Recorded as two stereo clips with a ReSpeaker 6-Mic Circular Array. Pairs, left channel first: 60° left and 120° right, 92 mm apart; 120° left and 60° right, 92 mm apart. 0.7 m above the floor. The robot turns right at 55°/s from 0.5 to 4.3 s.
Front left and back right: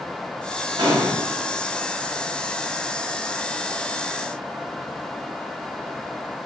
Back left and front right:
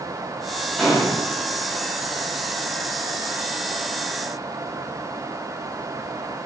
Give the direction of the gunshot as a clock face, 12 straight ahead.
5 o'clock.